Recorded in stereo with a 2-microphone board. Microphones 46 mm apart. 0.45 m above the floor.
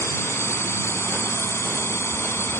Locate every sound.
0.0 s a drone: 70° left (ahead or behind); by 2.6 s 65° left (ahead or behind)